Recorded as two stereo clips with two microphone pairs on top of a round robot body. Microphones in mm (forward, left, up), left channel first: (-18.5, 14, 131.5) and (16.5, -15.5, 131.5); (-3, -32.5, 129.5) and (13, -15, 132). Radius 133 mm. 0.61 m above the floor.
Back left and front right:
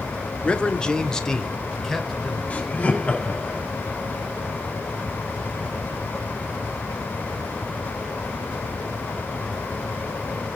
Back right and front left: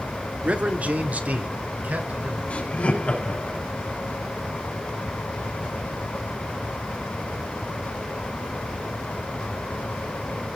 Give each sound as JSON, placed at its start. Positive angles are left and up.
{"t": 0.4, "sound": "a man speaking", "azimuth_deg": 75, "distance_m": 1.5}
{"t": 2.5, "sound": "laughter", "azimuth_deg": -160, "distance_m": 5.0}